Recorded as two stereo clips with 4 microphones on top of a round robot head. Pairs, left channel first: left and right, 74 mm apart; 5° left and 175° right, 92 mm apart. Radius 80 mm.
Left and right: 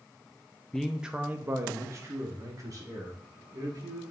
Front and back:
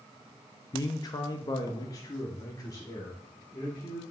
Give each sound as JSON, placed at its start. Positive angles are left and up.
{"t": 0.7, "sound": "a man speaking", "azimuth_deg": 10, "distance_m": 0.6}